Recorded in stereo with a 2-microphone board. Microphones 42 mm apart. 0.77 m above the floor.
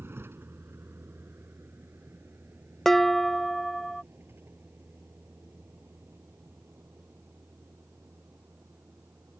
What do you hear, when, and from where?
0.0 s a vehicle: 70° right (ahead or behind); by 9.4 s 65° right (ahead or behind)
2.9 s dishes clattering: 10° left (ahead or behind)